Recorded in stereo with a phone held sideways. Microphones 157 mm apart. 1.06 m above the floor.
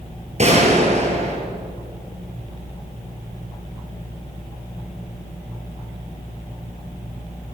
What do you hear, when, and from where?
0.4 s a gunshot: 45° right (ahead or behind), 4.5 m